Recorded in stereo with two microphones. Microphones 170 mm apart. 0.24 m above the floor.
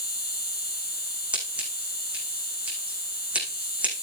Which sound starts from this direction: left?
An insect, at 0.0 s.